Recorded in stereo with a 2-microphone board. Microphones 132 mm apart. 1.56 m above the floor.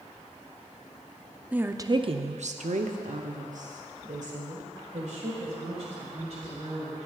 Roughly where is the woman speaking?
Centre.